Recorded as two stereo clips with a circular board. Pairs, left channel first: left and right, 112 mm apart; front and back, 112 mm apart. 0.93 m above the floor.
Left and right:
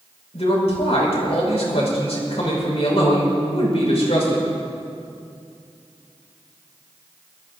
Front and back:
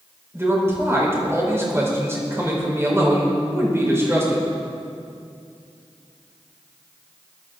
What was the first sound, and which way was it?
A man speaking, 115° left.